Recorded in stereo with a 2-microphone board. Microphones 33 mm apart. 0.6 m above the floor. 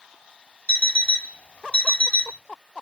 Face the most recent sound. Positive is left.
turn(degrees=35)  # may be behind; listen again after turning